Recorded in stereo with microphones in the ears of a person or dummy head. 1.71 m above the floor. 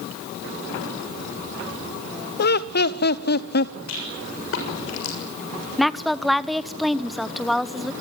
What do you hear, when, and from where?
2.4 s laughter: 55° left (ahead or behind), 1.0 m
3.9 s a rattle: 75° left (ahead or behind), 7 m
5.8 s a woman speaking: 5° left (ahead or behind), 1.1 m